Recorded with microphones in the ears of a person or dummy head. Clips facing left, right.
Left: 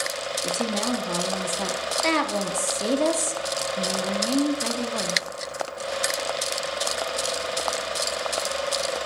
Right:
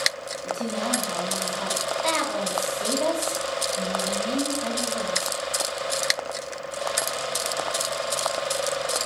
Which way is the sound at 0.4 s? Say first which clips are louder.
Left 1 dB; 60° left (ahead or behind).